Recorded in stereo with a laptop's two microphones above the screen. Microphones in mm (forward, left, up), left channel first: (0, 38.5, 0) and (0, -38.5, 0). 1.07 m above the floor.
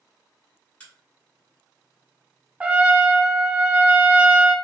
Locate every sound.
0.8 s a crack: 20° left (ahead or behind), 1.5 m
2.6 s a trumpet: 15° right (ahead or behind), 0.6 m